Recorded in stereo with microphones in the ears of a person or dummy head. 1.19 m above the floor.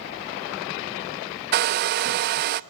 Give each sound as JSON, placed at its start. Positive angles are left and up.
{"t": 1.5, "sound": "a hair dryer", "side_deg": -45, "distance_m": 0.6}